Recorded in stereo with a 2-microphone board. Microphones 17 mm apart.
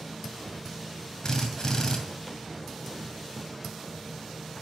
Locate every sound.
1.2 s a drill: 45° left (ahead or behind), 2 m